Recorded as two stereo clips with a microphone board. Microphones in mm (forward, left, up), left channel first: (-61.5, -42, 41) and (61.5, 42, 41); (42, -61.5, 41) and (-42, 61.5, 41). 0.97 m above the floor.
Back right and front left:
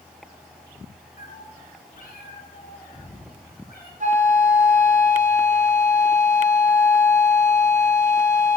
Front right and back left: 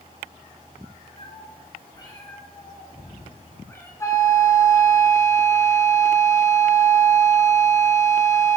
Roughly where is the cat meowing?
Right.